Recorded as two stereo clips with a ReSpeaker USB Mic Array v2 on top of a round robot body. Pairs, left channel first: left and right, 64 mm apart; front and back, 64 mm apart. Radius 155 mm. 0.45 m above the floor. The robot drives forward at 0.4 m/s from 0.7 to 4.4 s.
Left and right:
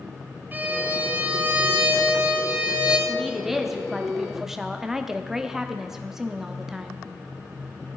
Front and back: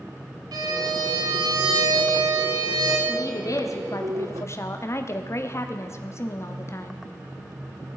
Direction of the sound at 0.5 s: 155° right.